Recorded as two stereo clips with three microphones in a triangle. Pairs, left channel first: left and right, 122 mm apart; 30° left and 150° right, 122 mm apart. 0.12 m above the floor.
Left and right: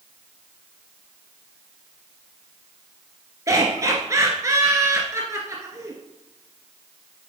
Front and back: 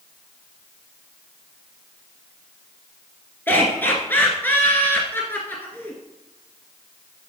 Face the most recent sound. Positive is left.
turn(degrees=-35)